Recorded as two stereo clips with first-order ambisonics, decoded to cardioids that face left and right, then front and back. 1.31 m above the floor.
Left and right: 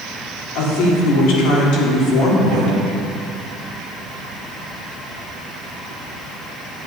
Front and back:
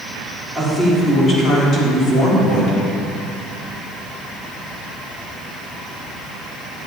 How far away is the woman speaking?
About 3.5 m.